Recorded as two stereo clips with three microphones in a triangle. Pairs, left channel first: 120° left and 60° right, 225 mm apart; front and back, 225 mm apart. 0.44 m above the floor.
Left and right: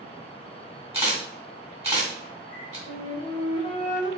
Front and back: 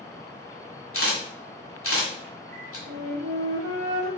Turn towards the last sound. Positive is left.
turn(degrees=180)